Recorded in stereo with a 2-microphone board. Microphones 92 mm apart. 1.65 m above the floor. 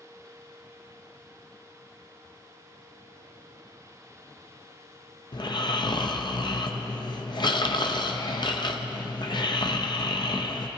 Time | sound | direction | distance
5.3 | snoring | 55° left (ahead or behind) | 0.6 m